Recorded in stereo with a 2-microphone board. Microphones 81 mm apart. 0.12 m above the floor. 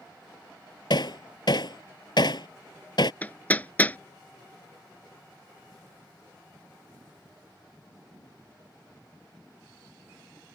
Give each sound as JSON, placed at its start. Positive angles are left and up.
{"t": 0.9, "sound": "hammering", "side_deg": 65}
{"t": 3.2, "sound": "hammering", "side_deg": 20}